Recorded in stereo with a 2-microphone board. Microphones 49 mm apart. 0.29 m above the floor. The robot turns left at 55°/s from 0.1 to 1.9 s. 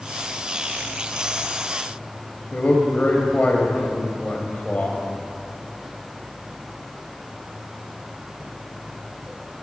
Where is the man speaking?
35° left (ahead or behind), 1.1 m.